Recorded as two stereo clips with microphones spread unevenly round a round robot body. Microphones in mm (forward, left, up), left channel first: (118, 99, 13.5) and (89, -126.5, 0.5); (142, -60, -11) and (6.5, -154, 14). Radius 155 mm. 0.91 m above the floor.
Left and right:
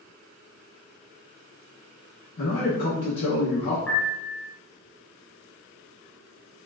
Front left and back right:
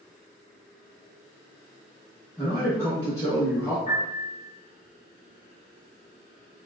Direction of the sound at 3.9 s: 110° left.